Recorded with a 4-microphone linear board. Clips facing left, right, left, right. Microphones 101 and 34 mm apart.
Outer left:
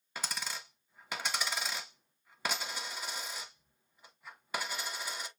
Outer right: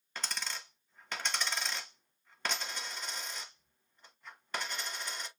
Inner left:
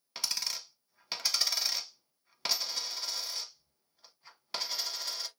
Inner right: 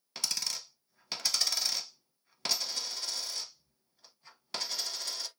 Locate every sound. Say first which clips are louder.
0.1 s a dropped coin: outer left 1 dB, even; 10° left (ahead or behind), 0.8 m